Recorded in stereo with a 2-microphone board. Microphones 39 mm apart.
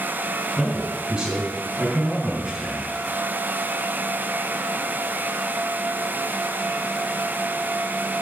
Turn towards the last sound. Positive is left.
turn(degrees=-15)  # may be behind; listen again after turning